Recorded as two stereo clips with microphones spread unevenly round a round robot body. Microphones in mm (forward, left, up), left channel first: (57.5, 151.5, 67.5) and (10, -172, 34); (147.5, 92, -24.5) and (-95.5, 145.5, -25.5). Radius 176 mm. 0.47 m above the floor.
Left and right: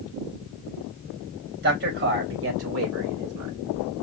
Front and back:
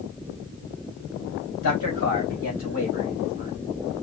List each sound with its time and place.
1.6 s a man speaking: 45° right, 3.5 m; by 3.5 s 75° right, 2.5 m